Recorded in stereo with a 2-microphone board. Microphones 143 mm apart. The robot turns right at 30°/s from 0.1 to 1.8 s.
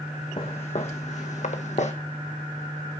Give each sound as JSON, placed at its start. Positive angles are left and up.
{"t": 0.4, "sound": "footsteps", "side_deg": 45, "distance_m": 1.9}